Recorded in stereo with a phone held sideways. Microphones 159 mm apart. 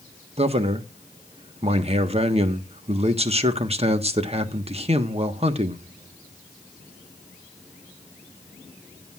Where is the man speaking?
40° right (ahead or behind), 1.3 m.